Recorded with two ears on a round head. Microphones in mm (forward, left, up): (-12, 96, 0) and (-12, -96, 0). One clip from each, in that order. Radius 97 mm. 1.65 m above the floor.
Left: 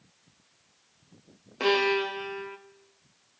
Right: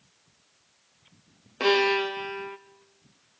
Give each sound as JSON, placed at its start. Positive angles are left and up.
{"t": 1.6, "sound": "a violin", "side_deg": -10, "distance_m": 0.8}